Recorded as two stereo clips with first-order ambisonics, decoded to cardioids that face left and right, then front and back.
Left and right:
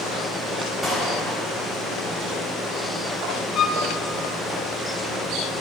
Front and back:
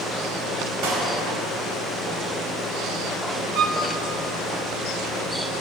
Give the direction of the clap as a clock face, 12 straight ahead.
6 o'clock.